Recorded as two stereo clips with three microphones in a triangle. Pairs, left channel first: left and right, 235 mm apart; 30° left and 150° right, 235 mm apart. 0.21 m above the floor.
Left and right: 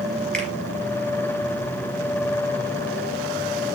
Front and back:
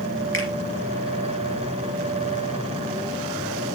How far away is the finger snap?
About 3.5 m.